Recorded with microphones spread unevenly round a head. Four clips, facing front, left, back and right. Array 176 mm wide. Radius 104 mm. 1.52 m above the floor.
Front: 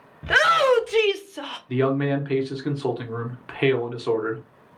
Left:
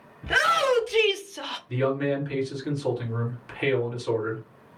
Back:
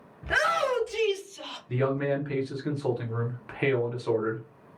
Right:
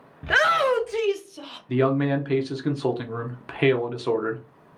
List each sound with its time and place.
0.2 s a shout: 25° right, 0.9 m; by 1.6 s 35° left, 0.5 m
1.7 s a man speaking: 40° right, 0.9 m